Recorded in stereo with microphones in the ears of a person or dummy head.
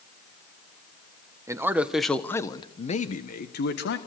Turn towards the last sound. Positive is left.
turn(degrees=65)  # may be behind; listen again after turning